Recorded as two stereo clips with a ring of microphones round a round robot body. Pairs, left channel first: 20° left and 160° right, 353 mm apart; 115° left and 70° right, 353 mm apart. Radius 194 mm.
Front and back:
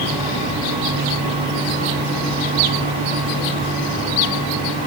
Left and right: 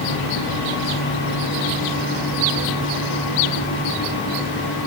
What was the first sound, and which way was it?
Only background noise.